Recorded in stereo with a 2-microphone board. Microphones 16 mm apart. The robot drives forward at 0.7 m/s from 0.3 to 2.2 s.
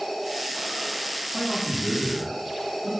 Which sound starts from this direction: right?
A man speaking, at 1.3 s.